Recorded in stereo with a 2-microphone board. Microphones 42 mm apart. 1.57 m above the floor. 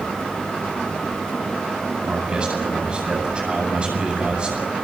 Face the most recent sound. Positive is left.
turn(degrees=-25)  # may be behind; listen again after turning